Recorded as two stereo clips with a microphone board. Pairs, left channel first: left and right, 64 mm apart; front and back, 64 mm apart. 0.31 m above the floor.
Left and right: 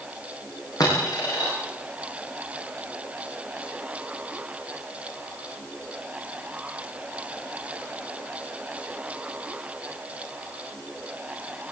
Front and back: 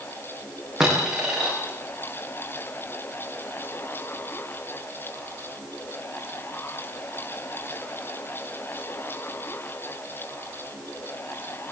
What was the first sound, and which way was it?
A dropped coin, 100° left.